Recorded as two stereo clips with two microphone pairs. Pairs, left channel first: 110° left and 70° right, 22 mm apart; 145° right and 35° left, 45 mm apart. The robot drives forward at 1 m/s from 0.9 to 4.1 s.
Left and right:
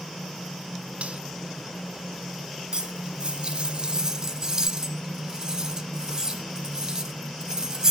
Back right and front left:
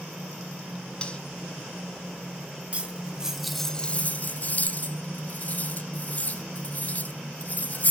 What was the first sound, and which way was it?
Cutlery clinking, 80° right.